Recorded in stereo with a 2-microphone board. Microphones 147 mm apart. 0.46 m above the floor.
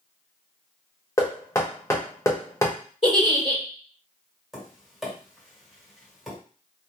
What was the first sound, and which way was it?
Knocking, 20° left (ahead or behind).